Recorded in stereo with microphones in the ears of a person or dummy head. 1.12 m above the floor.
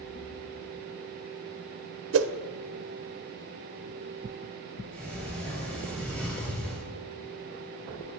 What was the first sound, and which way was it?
A whoosh, 65° right (ahead or behind).